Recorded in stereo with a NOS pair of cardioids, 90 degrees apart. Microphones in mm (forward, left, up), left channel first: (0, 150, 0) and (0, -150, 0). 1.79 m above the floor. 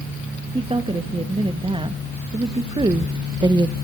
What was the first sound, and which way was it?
A woman speaking, 20° right.